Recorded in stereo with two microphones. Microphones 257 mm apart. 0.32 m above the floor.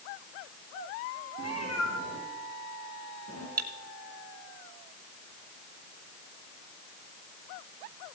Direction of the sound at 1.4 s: 80° left.